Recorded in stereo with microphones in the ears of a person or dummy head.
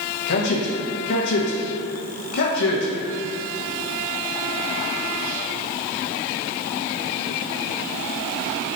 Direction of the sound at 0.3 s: 60° left (ahead or behind).